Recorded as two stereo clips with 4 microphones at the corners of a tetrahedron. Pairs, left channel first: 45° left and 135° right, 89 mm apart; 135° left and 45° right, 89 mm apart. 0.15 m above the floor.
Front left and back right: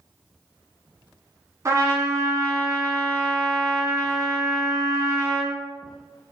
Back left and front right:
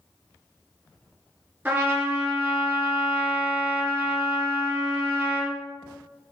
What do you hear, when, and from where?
1.6 s a trumpet: 105° right, 1.6 m